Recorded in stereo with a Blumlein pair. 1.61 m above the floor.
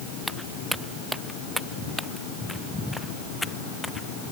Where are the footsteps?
Straight ahead; by 4.3 s 10° left.